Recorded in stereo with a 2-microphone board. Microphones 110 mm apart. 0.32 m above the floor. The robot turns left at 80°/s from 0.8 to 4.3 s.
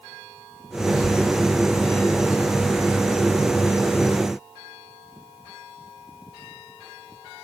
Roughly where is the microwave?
I don't hear a microwave.